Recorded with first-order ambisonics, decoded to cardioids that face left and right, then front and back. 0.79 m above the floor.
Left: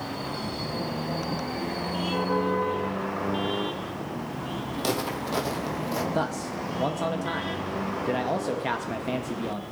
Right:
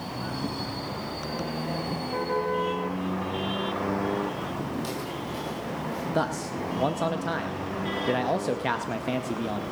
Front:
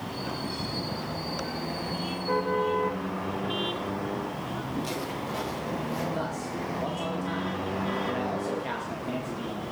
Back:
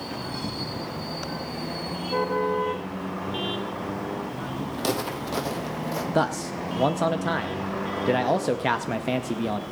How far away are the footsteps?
About 1.6 m.